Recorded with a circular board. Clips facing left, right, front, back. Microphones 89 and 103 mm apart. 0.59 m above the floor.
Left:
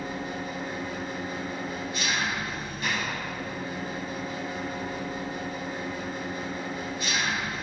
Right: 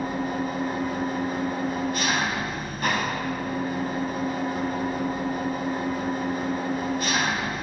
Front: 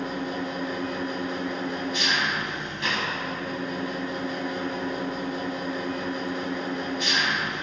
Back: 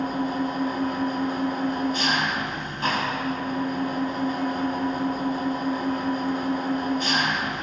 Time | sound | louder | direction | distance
0.0 | an engine running | right 6 dB, back 4 dB | 130° right | 3 m